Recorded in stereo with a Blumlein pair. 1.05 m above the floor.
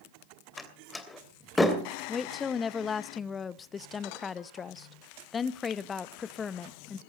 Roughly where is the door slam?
Ahead.